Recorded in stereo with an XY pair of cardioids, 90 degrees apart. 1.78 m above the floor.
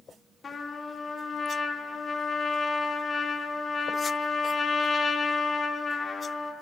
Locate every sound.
0.4 s a trumpet: 50° left, 1.0 m